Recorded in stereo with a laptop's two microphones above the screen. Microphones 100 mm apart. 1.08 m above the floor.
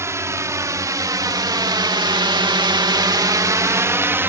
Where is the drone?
30° right (ahead or behind); by 4.3 s 20° right (ahead or behind).